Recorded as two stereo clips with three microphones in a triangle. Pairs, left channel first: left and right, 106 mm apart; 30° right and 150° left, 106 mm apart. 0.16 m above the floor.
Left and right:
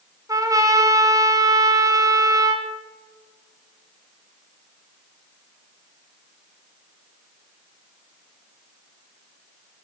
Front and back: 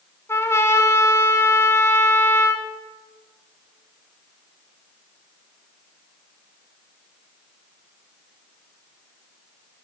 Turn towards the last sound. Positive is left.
turn(degrees=-75)